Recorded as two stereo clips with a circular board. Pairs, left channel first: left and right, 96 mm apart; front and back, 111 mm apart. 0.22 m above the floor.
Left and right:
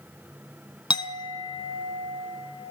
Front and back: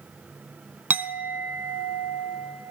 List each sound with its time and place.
0.9 s a clink: 110° left, 1.1 m